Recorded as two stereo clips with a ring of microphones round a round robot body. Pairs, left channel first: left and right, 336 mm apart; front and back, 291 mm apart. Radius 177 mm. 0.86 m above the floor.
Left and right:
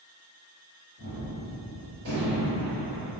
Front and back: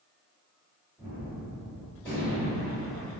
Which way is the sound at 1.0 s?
85° right.